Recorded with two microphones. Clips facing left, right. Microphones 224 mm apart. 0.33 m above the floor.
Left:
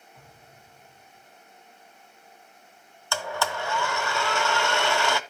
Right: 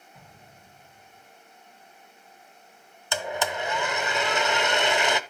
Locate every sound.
0.1 s an explosion: 50° right (ahead or behind), 7 m
3.1 s a blender: 20° right (ahead or behind), 0.7 m